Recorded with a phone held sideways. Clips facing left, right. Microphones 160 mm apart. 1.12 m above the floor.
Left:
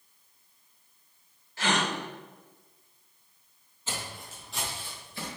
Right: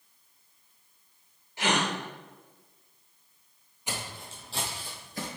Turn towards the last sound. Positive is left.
turn(degrees=-45)  # may be behind; listen again after turning